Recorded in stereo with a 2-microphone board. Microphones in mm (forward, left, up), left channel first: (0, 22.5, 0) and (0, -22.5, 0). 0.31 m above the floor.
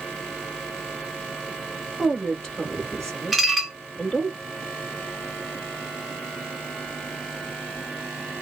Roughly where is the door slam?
I don't hear a door slam.